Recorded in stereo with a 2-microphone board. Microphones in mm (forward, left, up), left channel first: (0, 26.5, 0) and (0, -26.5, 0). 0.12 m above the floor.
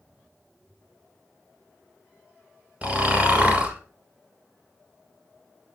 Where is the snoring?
25° right (ahead or behind), 1.3 m.